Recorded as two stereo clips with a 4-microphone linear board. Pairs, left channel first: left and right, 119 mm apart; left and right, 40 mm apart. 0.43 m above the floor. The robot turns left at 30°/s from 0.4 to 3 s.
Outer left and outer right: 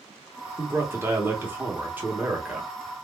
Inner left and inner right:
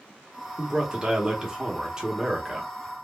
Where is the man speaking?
20° right (ahead or behind), 0.8 m; by 2.7 s 10° right (ahead or behind), 0.8 m.